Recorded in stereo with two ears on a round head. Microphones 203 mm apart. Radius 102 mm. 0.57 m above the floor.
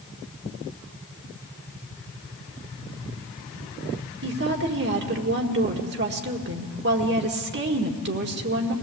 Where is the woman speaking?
50° right (ahead or behind), 1.7 m.